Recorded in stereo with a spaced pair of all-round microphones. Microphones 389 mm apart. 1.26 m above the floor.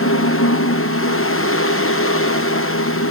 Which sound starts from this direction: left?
A fan, at 0.0 s.